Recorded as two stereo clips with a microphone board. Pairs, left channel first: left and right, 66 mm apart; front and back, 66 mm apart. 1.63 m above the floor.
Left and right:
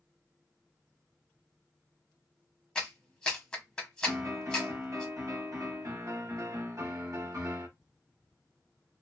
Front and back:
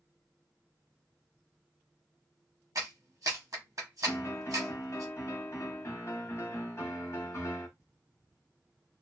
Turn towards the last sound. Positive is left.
turn(degrees=-50)